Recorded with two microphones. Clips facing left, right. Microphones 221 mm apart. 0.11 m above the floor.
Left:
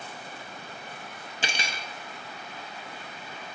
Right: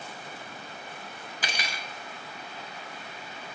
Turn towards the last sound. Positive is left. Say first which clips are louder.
# left 2 dB
turn(degrees=30)  # may be behind; listen again after turning